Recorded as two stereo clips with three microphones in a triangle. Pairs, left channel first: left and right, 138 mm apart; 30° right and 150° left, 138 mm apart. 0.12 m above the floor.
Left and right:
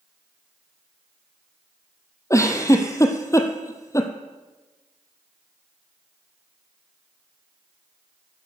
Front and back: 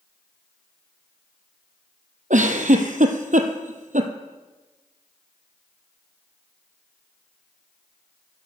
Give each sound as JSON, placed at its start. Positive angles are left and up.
{"t": 2.3, "sound": "a giggle", "azimuth_deg": 155, "distance_m": 1.1}